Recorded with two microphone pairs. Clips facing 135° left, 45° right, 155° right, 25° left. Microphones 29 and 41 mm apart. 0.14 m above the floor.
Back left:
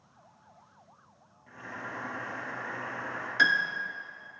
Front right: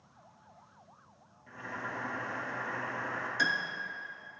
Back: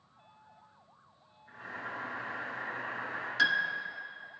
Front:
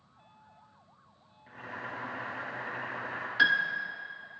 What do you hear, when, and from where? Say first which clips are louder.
1.5 s boiling: front right 1 dB, front 1 dB; 45° left, 3 m
3.4 s a piano: back left 7 dB, front 3 dB; 95° left, 0.5 m